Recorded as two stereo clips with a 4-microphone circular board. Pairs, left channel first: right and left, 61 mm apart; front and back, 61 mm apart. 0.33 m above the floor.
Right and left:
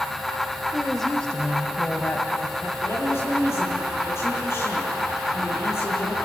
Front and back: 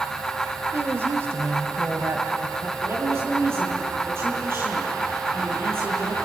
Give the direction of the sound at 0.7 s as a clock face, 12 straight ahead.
6 o'clock.